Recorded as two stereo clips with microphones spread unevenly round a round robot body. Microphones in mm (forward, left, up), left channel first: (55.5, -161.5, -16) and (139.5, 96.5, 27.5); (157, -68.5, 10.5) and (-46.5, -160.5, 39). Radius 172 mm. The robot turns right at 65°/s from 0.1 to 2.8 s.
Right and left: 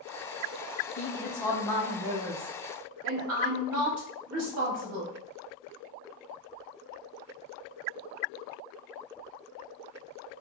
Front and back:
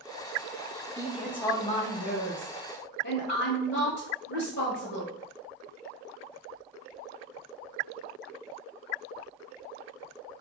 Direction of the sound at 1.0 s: 80° right.